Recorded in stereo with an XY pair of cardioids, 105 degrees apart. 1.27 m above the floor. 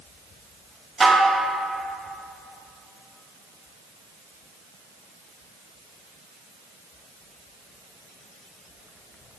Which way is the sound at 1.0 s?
20° right.